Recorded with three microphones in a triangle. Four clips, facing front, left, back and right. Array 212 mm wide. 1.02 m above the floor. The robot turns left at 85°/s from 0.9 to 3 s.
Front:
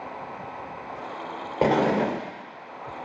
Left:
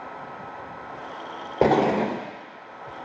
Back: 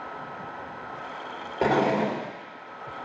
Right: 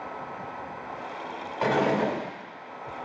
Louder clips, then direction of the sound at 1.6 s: Left 4 dB, front 1 dB; 70° left.